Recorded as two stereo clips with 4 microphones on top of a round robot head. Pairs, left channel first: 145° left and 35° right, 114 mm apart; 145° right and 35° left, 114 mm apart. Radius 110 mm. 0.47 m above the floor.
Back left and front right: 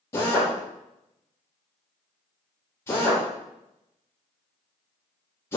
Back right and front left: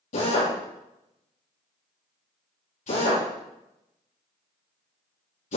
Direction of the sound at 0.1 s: 145° right.